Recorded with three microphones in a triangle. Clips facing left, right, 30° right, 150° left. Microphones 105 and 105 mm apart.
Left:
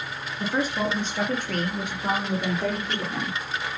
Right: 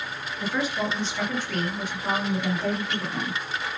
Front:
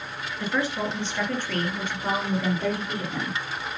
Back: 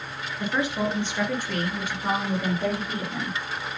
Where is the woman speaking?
90° left, 2 m; by 3.4 s 65° left, 4 m.